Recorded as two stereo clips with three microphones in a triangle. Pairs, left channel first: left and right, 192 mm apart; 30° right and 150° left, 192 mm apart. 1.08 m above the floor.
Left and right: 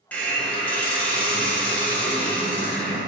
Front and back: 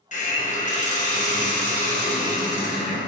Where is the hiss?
10° left, 0.8 m.